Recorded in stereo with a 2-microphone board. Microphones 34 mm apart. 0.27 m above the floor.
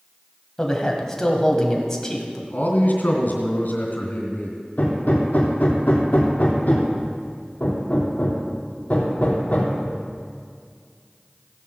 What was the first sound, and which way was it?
A man speaking, 15° left (ahead or behind).